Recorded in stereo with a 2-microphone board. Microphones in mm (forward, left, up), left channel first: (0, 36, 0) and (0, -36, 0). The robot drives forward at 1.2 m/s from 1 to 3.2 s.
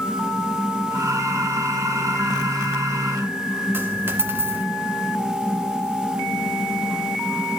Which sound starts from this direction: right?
A dropped coin, at 3.7 s.